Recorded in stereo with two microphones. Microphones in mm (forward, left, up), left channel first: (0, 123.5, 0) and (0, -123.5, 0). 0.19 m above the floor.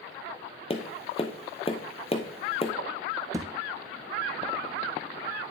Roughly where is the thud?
Centre.